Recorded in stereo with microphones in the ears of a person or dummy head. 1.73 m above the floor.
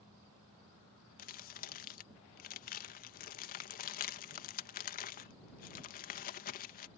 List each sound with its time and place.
1.2 s crumpling: 45° left (ahead or behind)